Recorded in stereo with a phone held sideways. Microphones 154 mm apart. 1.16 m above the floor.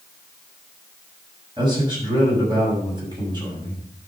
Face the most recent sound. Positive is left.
turn(degrees=-30)  # may be behind; listen again after turning